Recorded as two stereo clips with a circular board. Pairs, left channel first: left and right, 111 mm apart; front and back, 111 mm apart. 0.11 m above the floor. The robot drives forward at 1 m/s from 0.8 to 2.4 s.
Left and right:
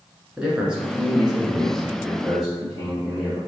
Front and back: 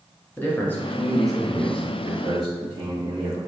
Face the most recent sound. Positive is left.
turn(degrees=-170)